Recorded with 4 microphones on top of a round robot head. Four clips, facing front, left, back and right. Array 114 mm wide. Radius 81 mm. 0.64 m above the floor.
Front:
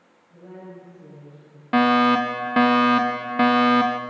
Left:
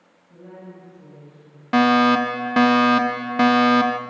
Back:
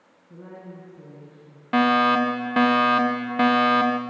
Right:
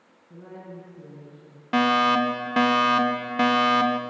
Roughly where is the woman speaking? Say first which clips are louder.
Even, even; behind right.